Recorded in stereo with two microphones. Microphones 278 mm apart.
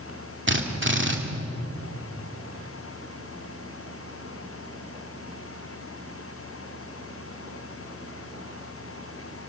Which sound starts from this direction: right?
A drill, at 0.5 s.